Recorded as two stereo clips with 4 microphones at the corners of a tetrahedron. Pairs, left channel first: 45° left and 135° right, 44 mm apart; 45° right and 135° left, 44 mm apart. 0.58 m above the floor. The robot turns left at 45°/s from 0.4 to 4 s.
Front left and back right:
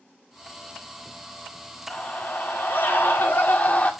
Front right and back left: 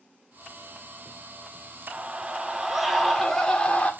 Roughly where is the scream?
Left.